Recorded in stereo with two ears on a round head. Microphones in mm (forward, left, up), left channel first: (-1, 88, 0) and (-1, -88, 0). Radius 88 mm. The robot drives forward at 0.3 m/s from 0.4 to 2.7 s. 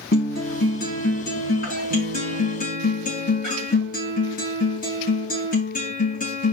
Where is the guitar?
50° left (ahead or behind), 4.5 m; by 6.5 s 40° left (ahead or behind), 5 m.